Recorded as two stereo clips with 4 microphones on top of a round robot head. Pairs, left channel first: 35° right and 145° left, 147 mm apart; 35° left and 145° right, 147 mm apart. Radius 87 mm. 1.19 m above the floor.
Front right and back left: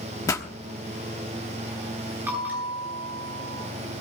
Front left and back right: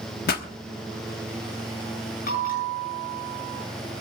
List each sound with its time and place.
0.3 s a pop: 30° left, 1.2 m
2.3 s a bell: 65° left, 8.5 m